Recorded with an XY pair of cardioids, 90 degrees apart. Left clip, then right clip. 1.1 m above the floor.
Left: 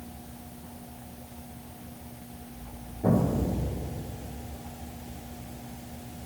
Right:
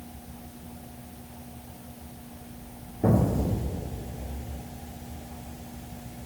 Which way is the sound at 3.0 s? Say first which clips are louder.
Right 1 dB; 60° right.